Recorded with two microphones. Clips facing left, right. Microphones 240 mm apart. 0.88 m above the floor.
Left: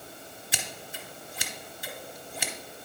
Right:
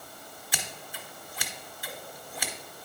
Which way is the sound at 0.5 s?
25° left (ahead or behind).